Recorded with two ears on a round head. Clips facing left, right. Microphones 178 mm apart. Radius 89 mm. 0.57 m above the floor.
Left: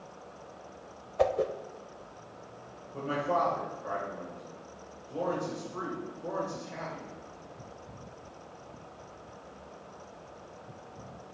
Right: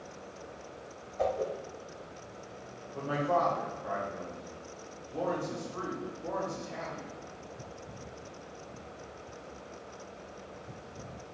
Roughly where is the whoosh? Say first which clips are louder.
Left 4 dB; left.